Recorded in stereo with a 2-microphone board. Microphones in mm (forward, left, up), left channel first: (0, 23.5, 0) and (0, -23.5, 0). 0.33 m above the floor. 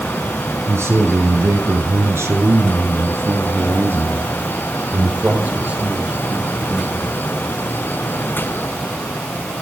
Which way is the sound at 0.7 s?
75° right (ahead or behind).